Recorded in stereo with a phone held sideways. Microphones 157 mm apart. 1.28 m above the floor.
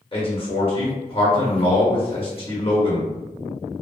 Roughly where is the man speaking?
Left.